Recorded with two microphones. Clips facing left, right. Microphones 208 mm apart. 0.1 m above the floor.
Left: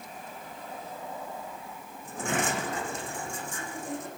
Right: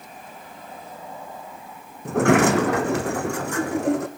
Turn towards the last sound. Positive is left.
turn(degrees=-75)  # may be behind; listen again after turning